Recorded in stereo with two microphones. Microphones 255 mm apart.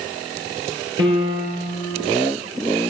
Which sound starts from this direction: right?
A piano, at 1.0 s.